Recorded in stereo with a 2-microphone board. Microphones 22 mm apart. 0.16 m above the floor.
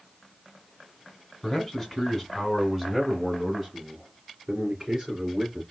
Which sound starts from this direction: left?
A man speaking, at 1.4 s.